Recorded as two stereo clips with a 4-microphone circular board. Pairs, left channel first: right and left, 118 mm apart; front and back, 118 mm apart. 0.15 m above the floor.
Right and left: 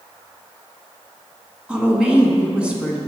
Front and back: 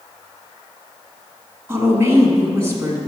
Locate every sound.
1.7 s a woman speaking: 155° left, 1.5 m